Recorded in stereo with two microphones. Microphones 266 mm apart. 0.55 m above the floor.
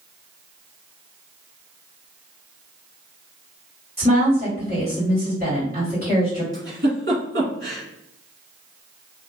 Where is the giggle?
50° right (ahead or behind), 0.9 m.